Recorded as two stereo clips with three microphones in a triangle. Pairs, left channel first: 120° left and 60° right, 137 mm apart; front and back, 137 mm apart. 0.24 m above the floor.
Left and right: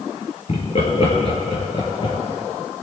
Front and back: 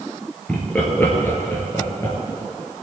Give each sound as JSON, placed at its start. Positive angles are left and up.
{"t": 0.5, "sound": "laughter", "azimuth_deg": 80, "distance_m": 4.0}